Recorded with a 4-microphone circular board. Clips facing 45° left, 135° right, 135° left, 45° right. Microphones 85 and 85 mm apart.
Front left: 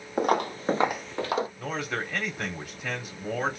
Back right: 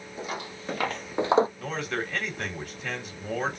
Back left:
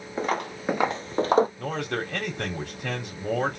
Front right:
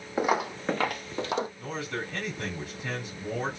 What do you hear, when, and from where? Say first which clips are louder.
0.2 s footsteps: front left 11 dB, front right 2 dB; 30° left, 0.9 m; by 1.5 s 175° left, 0.8 m
1.6 s a man speaking: even, back left 5 dB; 130° left, 3 m